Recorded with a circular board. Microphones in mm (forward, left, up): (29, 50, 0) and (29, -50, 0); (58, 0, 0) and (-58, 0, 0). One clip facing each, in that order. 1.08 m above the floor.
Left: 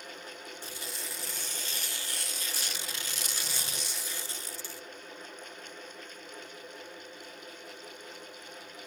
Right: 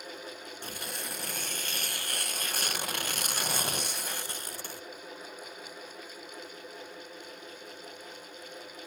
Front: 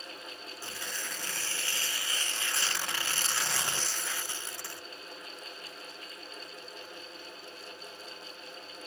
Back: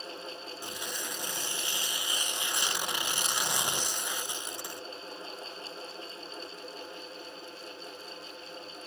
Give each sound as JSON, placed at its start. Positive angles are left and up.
{"t": 0.6, "sound": "tearing paper", "azimuth_deg": -110}